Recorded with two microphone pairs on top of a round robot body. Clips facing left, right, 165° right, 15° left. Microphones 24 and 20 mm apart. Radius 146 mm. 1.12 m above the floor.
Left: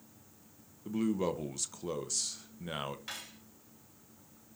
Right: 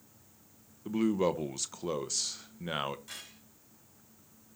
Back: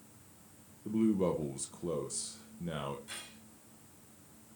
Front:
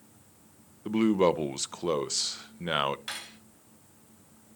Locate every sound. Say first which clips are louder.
0.8 s a man speaking: right 4 dB, front 7 dB; 20° right, 1.0 m
3.1 s cutlery clinking: left 2 dB, front 8 dB; 35° left, 5 m